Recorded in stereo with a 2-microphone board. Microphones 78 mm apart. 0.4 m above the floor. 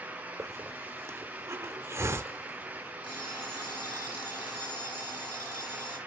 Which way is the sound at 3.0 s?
80° left.